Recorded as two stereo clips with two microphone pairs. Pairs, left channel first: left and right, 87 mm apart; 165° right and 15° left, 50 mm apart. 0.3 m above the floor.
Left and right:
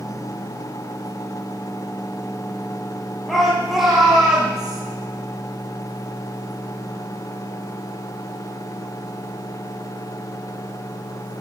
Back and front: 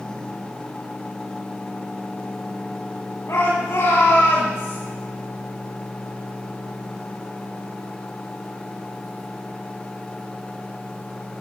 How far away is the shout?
About 7 m.